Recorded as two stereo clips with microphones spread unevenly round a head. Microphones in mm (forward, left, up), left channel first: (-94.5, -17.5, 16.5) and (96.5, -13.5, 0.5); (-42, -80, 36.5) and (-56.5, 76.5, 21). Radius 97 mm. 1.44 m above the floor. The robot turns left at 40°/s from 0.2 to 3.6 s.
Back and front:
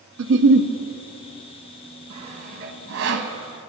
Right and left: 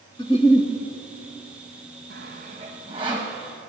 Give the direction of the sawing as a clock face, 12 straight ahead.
10 o'clock.